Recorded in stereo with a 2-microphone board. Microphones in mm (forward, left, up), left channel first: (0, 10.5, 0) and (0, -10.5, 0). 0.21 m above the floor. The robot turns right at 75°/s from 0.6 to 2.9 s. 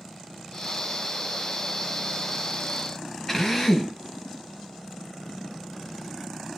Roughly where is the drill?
Centre.